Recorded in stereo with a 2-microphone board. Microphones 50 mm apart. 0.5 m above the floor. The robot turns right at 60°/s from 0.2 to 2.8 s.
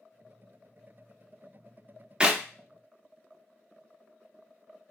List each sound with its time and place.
2.2 s a clap: 20° right (ahead or behind), 0.5 m; by 2.4 s 25° right (ahead or behind), 0.5 m